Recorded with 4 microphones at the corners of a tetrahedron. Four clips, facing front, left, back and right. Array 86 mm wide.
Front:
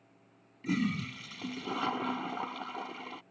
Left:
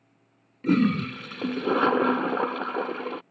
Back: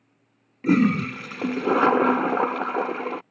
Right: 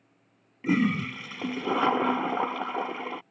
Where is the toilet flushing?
165° left.